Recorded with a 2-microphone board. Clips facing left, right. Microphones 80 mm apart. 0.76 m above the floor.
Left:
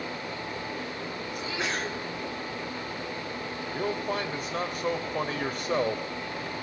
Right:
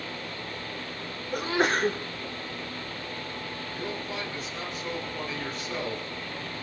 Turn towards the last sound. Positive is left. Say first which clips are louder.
# left 6 dB
turn(degrees=55)  # may be behind; listen again after turning